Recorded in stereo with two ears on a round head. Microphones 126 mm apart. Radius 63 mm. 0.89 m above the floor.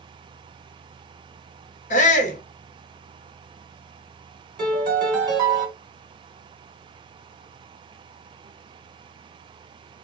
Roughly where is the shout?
Left.